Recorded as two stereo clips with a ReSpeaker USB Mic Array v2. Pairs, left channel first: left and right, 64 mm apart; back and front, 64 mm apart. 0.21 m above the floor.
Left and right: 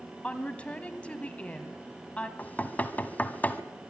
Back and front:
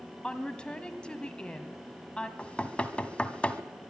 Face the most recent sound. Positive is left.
turn(degrees=125)